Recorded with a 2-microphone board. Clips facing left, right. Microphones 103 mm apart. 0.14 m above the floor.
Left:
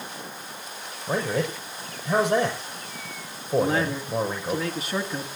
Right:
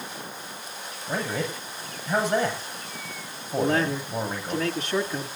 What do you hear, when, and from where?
1.1 s a man speaking: 65° left (ahead or behind), 6 m
3.6 s a man speaking: 10° left (ahead or behind), 2 m